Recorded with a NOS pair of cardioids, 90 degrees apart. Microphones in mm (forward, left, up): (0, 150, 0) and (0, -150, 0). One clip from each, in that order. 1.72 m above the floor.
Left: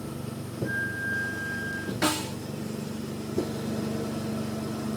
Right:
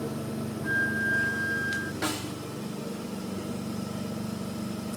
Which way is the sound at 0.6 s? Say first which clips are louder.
Right 3 dB; 45° right.